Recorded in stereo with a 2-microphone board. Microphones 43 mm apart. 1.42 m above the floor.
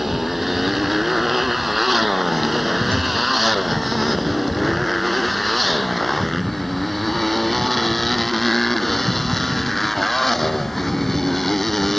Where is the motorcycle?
5° right (ahead or behind); by 12.0 s 5° left (ahead or behind).